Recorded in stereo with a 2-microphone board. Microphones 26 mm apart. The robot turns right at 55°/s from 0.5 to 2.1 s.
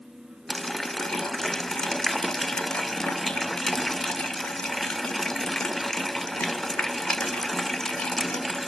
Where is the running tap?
5° left (ahead or behind), 0.7 m; by 8.7 s 20° left (ahead or behind), 0.7 m.